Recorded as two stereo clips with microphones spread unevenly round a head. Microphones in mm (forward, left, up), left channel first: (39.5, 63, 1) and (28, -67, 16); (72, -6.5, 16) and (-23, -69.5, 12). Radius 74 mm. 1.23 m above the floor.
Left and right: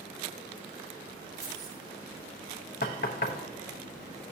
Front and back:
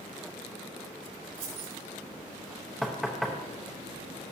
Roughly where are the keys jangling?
Behind.